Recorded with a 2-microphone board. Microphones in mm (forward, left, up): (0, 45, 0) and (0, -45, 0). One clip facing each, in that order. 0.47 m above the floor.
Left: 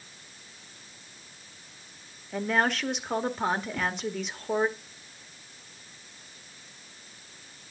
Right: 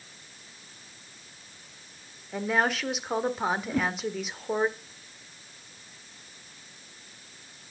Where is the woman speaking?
5° right (ahead or behind), 1.4 m.